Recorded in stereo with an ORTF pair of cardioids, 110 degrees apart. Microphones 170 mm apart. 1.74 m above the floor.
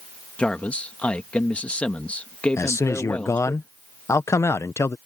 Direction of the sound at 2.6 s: 15° left.